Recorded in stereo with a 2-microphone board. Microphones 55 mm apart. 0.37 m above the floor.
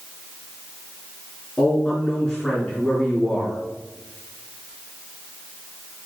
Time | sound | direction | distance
1.6 | a man speaking | 15° left (ahead or behind) | 3.5 m